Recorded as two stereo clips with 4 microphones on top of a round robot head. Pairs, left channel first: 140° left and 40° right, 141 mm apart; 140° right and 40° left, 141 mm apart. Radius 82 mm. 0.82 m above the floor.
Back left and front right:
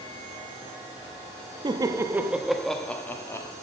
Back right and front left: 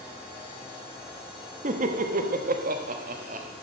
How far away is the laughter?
About 1.1 m.